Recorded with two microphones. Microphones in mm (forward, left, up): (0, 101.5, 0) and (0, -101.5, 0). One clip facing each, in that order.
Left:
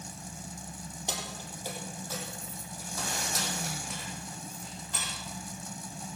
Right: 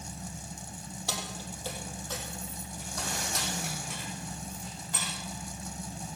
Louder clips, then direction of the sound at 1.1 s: Right 1 dB; 20° left (ahead or behind).